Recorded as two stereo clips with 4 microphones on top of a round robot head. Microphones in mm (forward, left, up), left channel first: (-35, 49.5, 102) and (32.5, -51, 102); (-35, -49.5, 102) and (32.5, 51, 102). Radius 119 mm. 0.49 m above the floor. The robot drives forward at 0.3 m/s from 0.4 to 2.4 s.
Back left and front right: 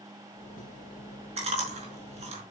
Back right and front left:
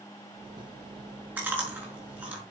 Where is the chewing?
20° right, 5 m.